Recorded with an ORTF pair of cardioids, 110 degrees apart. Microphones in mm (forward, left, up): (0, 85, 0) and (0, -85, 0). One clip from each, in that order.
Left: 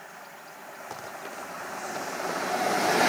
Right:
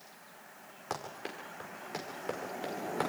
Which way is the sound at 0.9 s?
25° right.